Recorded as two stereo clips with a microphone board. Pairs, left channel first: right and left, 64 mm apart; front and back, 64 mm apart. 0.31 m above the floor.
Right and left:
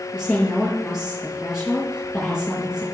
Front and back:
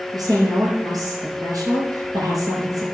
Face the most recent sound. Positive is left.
turn(degrees=175)